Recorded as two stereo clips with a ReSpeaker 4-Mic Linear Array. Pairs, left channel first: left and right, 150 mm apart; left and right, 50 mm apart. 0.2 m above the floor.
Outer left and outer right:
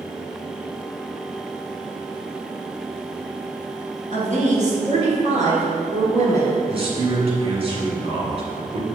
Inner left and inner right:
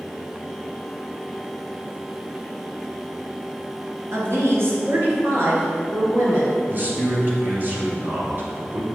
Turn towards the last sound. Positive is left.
turn(degrees=-40)  # may be behind; listen again after turning